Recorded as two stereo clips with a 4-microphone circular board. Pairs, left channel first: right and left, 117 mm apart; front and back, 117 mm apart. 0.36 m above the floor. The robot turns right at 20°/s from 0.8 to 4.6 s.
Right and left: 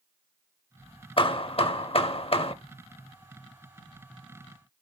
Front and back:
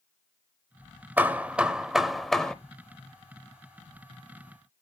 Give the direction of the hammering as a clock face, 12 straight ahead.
4 o'clock.